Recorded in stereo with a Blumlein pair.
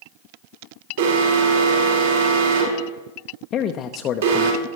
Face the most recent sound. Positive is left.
turn(degrees=30)